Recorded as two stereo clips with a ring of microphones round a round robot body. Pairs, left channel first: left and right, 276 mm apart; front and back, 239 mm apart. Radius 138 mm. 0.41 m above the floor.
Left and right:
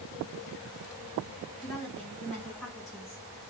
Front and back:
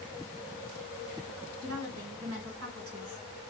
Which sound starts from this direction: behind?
A woman speaking, at 1.6 s.